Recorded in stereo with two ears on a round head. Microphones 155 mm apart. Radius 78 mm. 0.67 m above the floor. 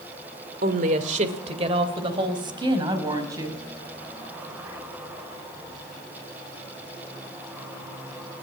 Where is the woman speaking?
50° right (ahead or behind), 2 m; by 3.6 s 20° right (ahead or behind), 5.5 m.